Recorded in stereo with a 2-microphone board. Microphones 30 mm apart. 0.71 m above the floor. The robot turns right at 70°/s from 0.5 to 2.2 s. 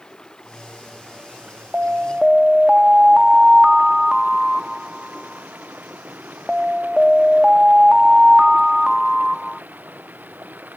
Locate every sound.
0.0 s running water: 155° left; by 10.8 s 85° right
1.7 s an alarm: 60° right; by 9.6 s 25° right